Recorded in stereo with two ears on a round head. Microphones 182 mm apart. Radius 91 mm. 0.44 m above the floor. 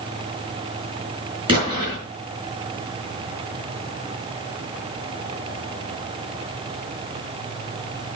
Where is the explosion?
25° right (ahead or behind), 3.5 m.